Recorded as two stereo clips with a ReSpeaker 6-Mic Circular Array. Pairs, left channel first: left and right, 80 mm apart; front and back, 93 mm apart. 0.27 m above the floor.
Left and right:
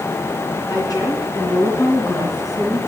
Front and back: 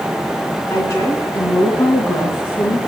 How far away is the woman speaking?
About 3.5 m.